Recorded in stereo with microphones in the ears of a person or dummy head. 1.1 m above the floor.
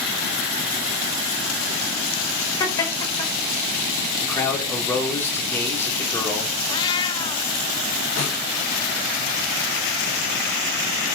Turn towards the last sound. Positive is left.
turn(degrees=35)  # may be behind; listen again after turning